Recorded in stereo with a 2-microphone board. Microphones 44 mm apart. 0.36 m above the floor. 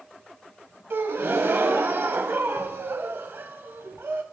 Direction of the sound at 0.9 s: 65° right (ahead or behind).